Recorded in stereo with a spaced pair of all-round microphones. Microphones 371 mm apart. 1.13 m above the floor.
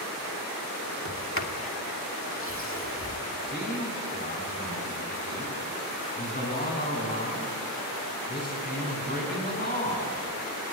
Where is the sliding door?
35° left (ahead or behind), 2 m.